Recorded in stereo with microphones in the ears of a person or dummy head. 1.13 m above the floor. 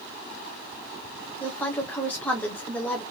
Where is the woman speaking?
5° left (ahead or behind), 0.7 m.